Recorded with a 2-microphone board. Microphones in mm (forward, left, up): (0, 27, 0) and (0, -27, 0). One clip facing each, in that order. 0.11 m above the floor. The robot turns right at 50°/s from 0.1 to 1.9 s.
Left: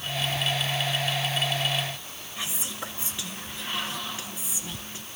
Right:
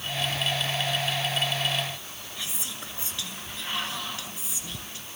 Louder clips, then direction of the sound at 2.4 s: Left 4 dB; 25° left (ahead or behind).